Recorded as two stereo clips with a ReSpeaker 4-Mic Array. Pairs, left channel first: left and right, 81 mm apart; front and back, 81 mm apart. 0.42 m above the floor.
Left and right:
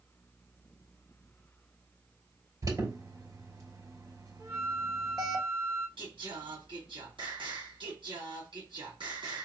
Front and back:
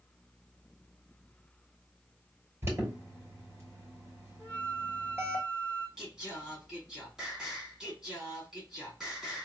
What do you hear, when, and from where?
2.6 s an alarm: 125° right, 3 m
4.4 s a flute: 75° right, 1.7 m
6.0 s singing: 95° right, 2 m